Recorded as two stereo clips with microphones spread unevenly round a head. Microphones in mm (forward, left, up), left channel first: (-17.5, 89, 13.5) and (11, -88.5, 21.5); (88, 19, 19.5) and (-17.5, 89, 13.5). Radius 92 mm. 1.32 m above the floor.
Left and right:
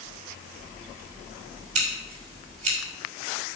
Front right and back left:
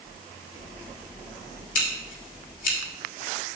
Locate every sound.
1.8 s scissors: 25° right, 3 m